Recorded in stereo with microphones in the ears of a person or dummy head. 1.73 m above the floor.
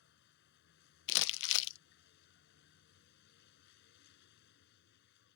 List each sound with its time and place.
0.0 s a vehicle: 60° left (ahead or behind)
1.1 s crumpling: 70° left (ahead or behind)